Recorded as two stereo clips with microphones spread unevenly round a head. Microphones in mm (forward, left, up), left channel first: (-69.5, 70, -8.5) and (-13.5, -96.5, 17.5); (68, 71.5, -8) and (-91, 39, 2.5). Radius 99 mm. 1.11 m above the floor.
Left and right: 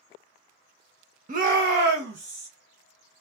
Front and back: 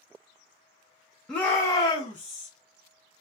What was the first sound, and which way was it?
A shout, 70° right.